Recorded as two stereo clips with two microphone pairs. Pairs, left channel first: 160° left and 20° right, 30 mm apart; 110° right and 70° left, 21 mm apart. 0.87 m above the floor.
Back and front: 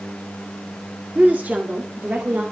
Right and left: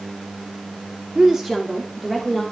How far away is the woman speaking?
About 2.5 m.